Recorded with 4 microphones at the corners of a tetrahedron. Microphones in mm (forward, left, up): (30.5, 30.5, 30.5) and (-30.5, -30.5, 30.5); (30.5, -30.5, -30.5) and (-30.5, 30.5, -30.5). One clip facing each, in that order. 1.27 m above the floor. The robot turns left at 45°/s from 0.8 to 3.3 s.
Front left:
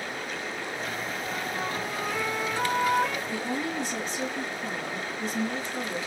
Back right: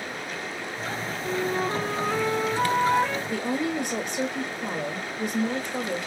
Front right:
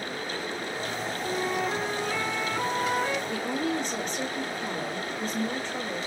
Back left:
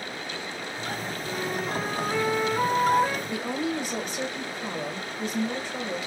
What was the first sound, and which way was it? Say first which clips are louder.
A flute: back right 9 dB, front right 2 dB; 120° right.